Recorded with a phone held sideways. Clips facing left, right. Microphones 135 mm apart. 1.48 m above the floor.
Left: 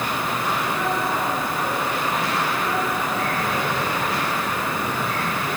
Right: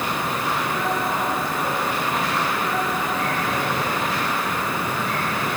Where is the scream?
I don't hear a scream.